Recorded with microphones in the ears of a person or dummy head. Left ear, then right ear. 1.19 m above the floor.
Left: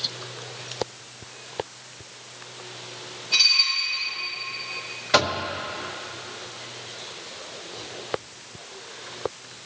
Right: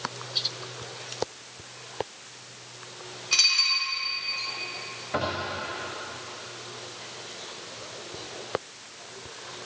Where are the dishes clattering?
60° right (ahead or behind), 3 m.